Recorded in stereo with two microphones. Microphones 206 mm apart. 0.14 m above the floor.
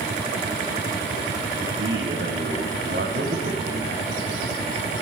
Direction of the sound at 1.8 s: 60° right (ahead or behind).